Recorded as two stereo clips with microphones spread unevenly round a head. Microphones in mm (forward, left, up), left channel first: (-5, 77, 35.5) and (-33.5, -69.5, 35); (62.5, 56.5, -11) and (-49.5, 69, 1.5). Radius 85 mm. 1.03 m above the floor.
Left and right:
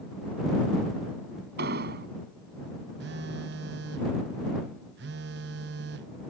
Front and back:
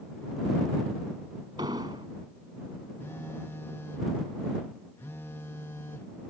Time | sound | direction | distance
1.6 | an explosion | 120° right | ?
3.0 | a phone buzzing | 85° right | ?